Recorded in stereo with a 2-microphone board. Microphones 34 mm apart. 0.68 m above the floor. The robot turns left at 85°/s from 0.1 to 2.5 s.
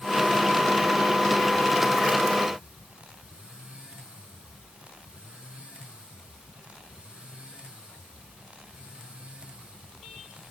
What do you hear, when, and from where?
Only background noise.